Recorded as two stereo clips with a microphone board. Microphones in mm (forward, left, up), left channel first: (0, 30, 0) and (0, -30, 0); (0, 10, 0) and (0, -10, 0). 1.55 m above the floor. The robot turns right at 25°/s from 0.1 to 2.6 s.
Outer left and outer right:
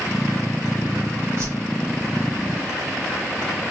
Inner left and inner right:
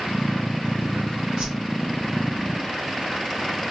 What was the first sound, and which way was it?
A whoosh, 50° right (ahead or behind).